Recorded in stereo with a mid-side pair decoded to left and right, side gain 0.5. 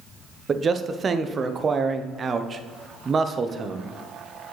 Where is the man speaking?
40° right, 0.7 m.